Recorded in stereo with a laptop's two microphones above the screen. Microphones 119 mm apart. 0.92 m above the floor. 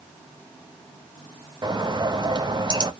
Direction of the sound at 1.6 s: 35° right (ahead or behind).